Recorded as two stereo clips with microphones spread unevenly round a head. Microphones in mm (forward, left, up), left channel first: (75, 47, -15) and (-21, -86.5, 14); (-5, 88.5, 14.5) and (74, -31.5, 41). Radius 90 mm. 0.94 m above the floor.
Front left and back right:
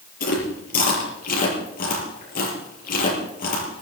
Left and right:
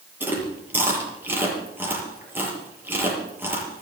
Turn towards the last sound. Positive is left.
turn(degrees=20)